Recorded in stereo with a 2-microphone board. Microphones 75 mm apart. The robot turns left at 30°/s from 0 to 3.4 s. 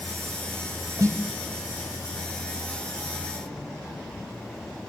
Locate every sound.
1.0 s a snare drum: 45° right (ahead or behind), 1.1 m; by 1.2 s 40° right (ahead or behind), 1.1 m